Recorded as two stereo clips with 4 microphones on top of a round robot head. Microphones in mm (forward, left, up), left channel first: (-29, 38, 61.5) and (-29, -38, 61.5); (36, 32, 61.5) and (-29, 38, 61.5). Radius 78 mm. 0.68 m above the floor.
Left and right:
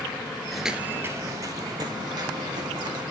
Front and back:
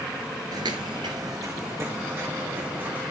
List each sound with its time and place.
0.5 s footsteps: 175° left, 0.8 m; by 3.0 s 115° right, 3 m